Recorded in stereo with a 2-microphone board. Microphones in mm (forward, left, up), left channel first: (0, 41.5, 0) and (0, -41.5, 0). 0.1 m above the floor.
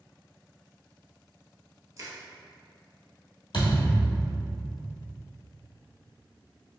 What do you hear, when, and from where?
2.0 s crushing: 40° right (ahead or behind), 1.1 m
3.5 s a thud: 65° left (ahead or behind), 1.3 m